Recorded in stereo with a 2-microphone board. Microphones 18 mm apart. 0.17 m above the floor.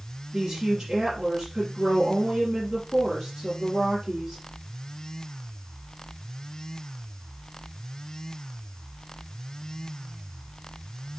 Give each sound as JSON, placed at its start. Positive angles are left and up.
{"t": 0.3, "sound": "a woman speaking", "side_deg": -40, "distance_m": 4.5}